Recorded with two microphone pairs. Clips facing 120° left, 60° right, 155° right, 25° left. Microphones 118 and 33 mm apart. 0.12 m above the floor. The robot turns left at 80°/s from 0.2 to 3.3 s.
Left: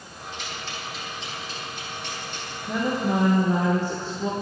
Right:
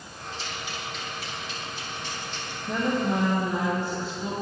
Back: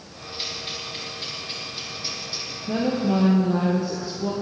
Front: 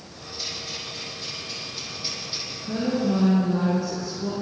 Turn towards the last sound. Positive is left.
turn(degrees=160)